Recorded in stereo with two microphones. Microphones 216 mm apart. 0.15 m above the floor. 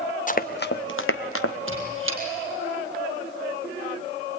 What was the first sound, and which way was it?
Running footsteps, 35° left (ahead or behind).